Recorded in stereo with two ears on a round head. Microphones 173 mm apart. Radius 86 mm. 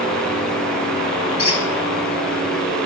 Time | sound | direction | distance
1.4 | a squeak | 60° left (ahead or behind) | 2.5 m